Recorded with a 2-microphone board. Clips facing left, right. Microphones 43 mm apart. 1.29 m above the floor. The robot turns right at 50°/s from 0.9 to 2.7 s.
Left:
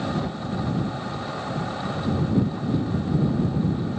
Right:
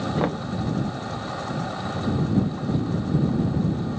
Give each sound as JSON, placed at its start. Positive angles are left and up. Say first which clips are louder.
{"t": 0.2, "sound": "knocking", "louder": "right 4 dB", "side_deg": -55}